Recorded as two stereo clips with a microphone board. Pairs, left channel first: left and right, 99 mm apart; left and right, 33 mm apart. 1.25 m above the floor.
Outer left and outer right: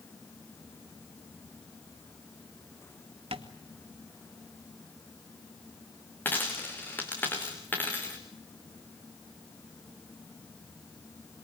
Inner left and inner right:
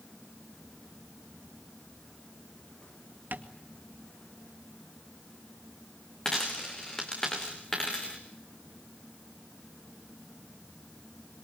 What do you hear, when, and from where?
3.3 s tapping: 75° right (ahead or behind), 2 m
6.2 s a dropped coin: 20° left (ahead or behind), 5 m